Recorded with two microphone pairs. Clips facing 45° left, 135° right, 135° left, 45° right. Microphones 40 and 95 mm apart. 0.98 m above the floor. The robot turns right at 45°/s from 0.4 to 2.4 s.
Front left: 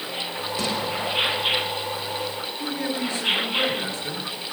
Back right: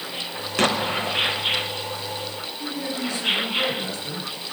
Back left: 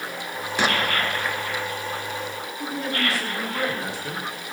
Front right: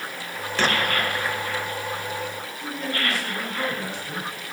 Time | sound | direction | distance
0.6 | an explosion | 150° right | 1.9 m
2.6 | a man speaking | 115° left | 9.5 m